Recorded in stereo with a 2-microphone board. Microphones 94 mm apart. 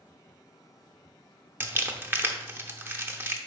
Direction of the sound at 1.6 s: 25° right (ahead or behind).